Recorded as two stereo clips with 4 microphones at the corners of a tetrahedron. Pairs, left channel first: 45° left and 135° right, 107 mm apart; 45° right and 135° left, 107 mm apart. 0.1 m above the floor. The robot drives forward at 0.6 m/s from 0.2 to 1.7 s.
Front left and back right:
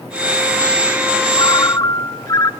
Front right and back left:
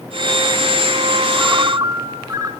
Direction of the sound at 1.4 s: 75° left.